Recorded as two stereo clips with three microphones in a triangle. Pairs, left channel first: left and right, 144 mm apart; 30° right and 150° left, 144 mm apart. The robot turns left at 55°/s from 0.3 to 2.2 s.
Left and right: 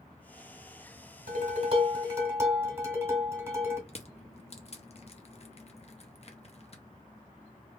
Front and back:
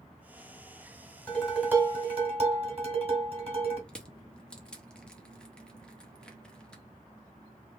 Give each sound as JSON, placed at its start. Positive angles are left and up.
{"t": 1.3, "sound": "dishes clattering", "azimuth_deg": -110, "distance_m": 1.4}
{"t": 3.9, "sound": "crushing", "azimuth_deg": 50, "distance_m": 0.6}